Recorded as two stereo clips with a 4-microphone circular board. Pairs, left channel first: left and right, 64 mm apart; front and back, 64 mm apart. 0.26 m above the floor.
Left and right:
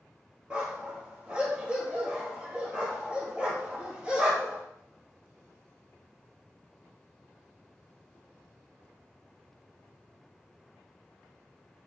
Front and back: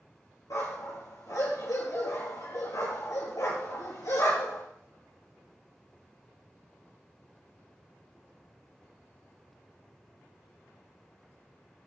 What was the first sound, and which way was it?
A dog barking, 15° right.